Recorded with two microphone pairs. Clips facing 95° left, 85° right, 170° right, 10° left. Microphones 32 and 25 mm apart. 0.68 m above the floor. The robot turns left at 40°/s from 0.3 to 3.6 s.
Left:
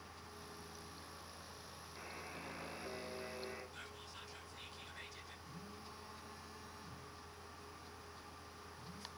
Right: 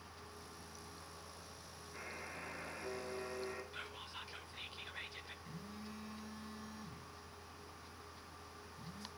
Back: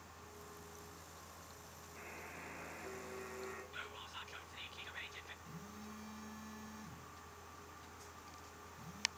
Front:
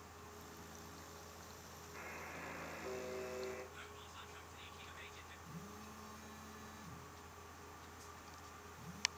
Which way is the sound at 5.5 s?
100° right.